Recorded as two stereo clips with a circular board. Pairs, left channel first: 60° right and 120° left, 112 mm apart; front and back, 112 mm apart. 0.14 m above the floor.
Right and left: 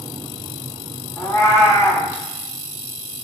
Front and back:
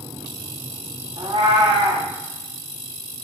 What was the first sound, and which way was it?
A cat meowing, 130° right.